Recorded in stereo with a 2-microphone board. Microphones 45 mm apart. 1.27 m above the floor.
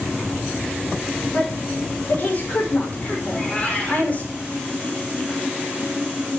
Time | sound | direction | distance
1.3 | a woman speaking | 40° left (ahead or behind) | 4.5 m
3.2 | a cat meowing | 25° left (ahead or behind) | 5 m